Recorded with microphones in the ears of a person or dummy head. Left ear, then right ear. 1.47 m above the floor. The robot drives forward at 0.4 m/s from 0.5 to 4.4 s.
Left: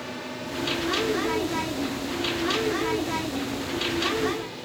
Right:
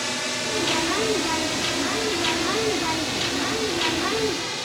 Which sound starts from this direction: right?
A drone, at 0.0 s.